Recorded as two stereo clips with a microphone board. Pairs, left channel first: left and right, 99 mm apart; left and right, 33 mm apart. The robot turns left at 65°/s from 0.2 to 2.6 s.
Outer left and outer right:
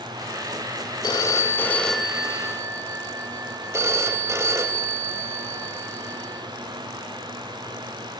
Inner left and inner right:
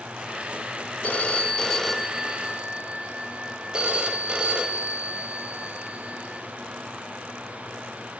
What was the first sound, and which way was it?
A phone ringing, 65° left.